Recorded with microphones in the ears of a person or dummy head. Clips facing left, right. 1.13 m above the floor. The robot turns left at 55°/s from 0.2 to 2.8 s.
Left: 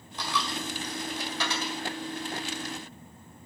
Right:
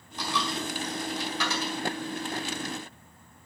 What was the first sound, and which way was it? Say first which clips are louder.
A dropped coin: right 2 dB; 70° left (ahead or behind).